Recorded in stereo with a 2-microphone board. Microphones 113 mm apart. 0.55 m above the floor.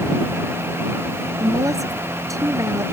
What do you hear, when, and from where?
1.4 s a woman speaking: 30° right (ahead or behind)